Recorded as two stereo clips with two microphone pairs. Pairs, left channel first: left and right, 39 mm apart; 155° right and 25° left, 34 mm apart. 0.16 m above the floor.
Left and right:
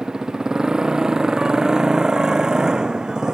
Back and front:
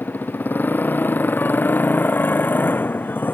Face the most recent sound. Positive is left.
turn(degrees=-160)